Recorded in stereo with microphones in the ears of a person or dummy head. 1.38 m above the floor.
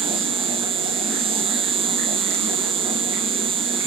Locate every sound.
0.0 s an insect: 30° right (ahead or behind), 0.8 m